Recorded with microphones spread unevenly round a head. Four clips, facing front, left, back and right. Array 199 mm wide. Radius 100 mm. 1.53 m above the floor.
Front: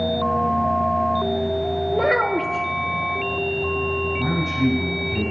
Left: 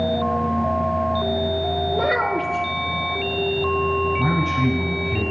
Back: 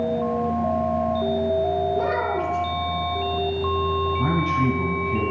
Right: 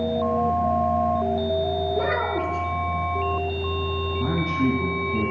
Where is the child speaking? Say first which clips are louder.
Left 3 dB, front 3 dB; 20° left, 1.9 m.